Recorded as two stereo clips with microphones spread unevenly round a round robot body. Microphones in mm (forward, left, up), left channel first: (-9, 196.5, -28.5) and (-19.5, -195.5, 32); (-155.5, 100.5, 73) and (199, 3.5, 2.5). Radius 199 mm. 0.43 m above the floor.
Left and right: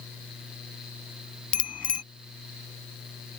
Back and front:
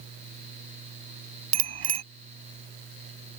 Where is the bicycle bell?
Straight ahead.